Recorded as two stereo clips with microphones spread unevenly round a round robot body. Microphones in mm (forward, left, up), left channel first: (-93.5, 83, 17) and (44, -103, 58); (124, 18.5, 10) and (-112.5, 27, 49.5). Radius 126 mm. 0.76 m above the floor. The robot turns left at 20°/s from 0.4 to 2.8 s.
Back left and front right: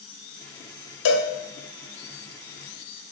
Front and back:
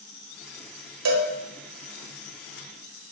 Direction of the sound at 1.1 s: 155° left.